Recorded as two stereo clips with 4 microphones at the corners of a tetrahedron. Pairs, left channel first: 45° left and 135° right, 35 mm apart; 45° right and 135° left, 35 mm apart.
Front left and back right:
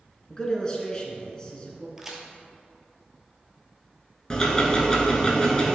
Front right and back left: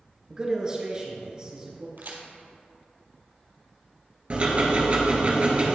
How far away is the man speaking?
About 1.4 m.